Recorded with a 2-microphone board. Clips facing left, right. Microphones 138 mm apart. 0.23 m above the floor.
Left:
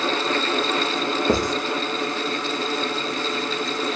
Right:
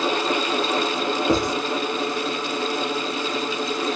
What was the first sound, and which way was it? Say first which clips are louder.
Writing: even; 10° left (ahead or behind).